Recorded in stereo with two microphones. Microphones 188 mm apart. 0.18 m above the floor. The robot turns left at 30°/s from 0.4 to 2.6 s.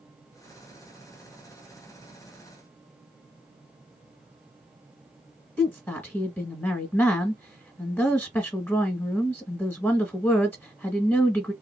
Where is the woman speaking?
10° left (ahead or behind), 1.0 m.